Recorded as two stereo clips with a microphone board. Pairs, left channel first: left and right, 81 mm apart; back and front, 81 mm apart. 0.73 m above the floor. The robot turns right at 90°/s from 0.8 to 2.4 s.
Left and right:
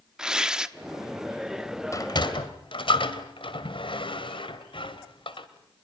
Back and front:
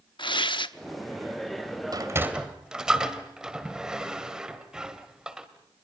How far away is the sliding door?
About 2.0 m.